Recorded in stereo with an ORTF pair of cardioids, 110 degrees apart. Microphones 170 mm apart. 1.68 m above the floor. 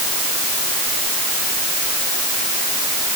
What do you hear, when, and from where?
Only background noise.